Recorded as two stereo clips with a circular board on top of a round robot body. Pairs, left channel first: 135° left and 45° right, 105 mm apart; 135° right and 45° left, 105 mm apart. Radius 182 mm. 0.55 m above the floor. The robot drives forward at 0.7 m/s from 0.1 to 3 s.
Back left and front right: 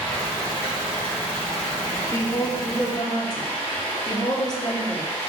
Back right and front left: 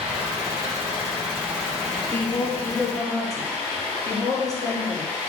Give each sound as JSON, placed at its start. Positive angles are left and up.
{"t": 0.0, "sound": "running water", "azimuth_deg": 55, "distance_m": 0.9}
{"t": 2.1, "sound": "a woman speaking", "azimuth_deg": 170, "distance_m": 0.9}